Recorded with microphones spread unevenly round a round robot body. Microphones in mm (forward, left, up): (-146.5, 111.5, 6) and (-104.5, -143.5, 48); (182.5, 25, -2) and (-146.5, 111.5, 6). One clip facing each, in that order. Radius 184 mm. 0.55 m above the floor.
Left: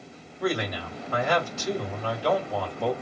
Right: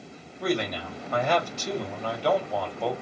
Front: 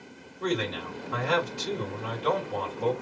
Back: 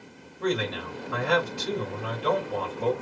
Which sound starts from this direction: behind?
A man speaking, at 0.4 s.